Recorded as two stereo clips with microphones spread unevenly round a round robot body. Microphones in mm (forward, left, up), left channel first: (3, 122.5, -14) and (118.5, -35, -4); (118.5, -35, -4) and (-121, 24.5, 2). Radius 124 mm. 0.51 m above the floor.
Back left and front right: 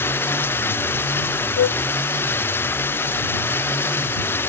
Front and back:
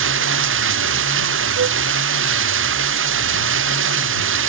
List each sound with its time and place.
0.0 s running water: 150° right
1.6 s a flute: 125° left